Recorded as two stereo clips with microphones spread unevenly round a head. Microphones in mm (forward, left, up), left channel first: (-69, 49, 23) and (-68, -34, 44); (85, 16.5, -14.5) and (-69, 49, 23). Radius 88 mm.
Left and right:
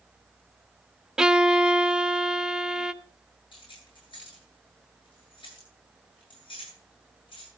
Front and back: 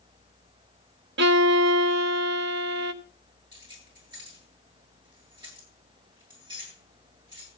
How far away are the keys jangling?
About 9 m.